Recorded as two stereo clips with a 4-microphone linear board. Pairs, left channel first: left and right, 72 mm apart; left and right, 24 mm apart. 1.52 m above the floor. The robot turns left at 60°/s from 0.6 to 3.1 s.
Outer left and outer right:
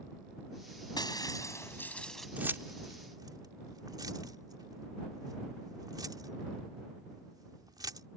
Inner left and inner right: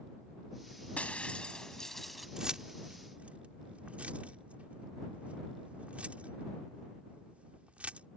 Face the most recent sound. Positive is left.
turn(degrees=-65)  # may be behind; listen again after turning